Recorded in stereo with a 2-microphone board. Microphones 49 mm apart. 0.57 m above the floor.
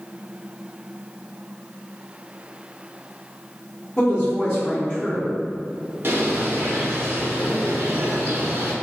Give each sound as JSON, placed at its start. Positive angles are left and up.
{"t": 4.0, "sound": "a woman speaking", "side_deg": 30, "distance_m": 1.2}
{"t": 6.0, "sound": "a bird", "side_deg": -55, "distance_m": 0.6}